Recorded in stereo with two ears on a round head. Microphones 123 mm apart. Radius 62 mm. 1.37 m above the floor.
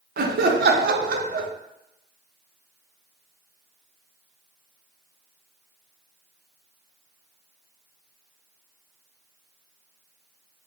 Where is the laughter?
80° right, 0.5 m.